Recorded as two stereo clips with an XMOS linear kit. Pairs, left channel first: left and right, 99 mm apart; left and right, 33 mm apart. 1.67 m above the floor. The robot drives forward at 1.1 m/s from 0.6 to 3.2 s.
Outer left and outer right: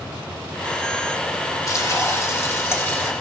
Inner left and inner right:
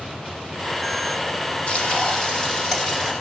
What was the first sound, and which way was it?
Frying, 35° left (ahead or behind).